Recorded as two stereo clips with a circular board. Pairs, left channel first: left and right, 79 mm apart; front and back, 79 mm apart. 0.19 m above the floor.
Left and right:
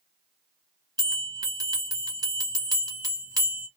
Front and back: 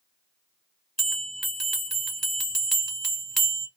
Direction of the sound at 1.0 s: 95° right.